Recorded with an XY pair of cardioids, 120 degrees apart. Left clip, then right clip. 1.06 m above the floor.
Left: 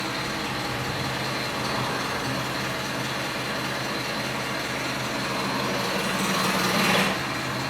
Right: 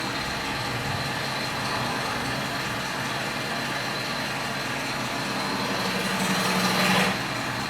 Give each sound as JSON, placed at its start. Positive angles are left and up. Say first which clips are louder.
{"t": 0.0, "sound": "an engine running", "louder": "even", "azimuth_deg": 60, "distance_m": 2.0}